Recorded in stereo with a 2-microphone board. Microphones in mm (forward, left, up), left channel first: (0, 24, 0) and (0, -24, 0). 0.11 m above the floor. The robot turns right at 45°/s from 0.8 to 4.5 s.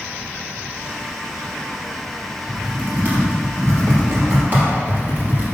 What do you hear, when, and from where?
2.5 s typing on a keyboard: 20° right (ahead or behind), 2.5 m; by 5.5 s 45° right (ahead or behind), 2.5 m